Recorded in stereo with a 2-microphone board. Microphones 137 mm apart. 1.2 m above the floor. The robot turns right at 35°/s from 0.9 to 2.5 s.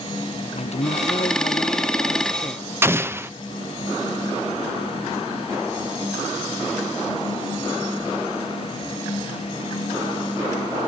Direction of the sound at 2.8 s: 20° right (ahead or behind).